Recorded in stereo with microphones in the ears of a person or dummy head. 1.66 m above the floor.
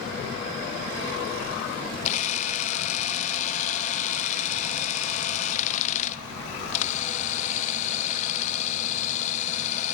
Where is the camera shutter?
45° left (ahead or behind), 0.6 m.